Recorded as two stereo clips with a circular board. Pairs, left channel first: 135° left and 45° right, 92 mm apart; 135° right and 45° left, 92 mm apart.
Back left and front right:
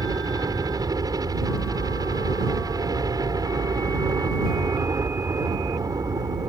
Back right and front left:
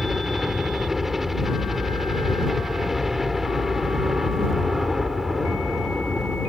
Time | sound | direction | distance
0.0 | a helicopter | 40° right | ?